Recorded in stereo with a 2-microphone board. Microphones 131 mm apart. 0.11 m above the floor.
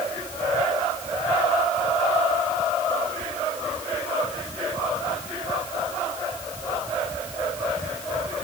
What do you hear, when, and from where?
Only background noise.